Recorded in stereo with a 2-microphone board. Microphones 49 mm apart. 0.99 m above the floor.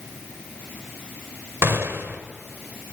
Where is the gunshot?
60° right (ahead or behind), 1.7 m.